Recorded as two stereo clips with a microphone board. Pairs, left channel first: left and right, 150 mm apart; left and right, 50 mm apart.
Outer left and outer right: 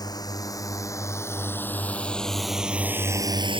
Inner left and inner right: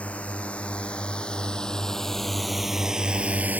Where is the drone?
25° left (ahead or behind); by 3.6 s 40° right (ahead or behind).